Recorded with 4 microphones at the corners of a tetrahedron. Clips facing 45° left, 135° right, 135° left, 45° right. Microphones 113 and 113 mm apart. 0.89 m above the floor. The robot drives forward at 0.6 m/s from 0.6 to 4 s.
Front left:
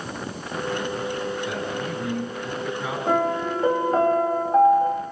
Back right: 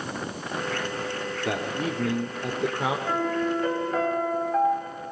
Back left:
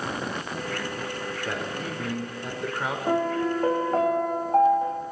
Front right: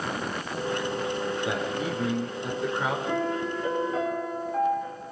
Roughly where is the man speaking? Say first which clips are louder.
Even, front right 3 dB; behind right.